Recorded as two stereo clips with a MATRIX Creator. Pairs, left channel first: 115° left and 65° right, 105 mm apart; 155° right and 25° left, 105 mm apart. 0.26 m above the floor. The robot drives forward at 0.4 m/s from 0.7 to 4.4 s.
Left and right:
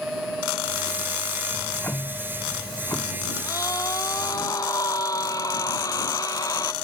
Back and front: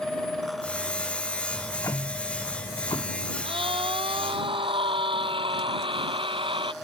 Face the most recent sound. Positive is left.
turn(degrees=55)